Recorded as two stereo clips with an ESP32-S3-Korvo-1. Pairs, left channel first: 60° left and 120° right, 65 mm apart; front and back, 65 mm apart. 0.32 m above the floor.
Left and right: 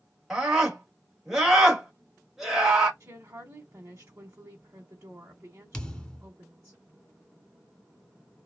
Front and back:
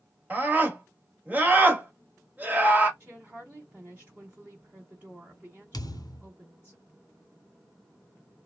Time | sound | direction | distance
0.3 | a scream | 155° left | 1.2 m
3.0 | a woman speaking | 125° right | 1.0 m
5.7 | a thud | 15° right | 0.6 m